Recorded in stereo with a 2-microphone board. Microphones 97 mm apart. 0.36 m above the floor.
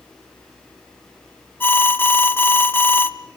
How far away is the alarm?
About 0.9 m.